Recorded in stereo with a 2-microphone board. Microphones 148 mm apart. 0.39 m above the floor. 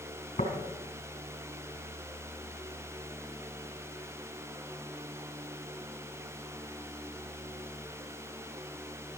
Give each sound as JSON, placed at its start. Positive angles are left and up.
{"t": 0.4, "sound": "tapping", "side_deg": 55, "distance_m": 4.0}